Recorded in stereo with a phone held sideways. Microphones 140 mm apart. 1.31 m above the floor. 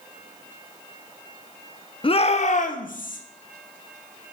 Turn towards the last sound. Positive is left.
turn(degrees=75)  # may be behind; listen again after turning